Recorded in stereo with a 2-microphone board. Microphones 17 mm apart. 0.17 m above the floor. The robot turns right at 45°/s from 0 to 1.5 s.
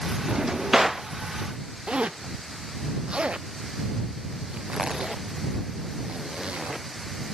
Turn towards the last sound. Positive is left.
turn(degrees=-80)